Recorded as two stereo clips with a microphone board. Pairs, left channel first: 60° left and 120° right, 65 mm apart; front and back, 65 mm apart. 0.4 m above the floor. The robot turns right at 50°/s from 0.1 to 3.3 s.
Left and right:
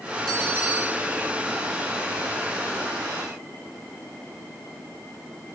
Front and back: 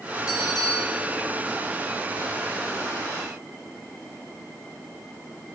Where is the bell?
20° right, 2.5 m; by 1.1 s 20° left, 2.5 m.